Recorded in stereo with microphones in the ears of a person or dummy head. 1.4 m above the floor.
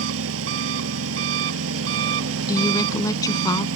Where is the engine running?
75° right (ahead or behind).